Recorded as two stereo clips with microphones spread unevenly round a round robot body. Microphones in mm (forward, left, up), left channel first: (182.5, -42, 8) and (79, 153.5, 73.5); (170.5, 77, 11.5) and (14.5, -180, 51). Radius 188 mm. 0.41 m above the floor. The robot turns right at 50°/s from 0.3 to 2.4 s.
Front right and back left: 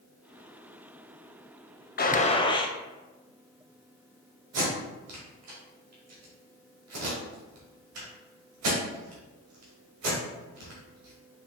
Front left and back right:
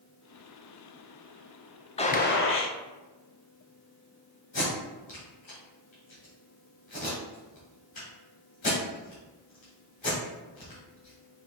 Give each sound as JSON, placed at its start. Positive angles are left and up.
{"t": 2.0, "sound": "a gunshot", "azimuth_deg": -15, "distance_m": 0.7}
{"t": 4.5, "sound": "tape being pulled", "azimuth_deg": 125, "distance_m": 1.7}